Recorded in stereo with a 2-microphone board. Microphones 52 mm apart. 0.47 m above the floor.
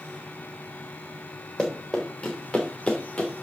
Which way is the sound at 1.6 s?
5° left (ahead or behind).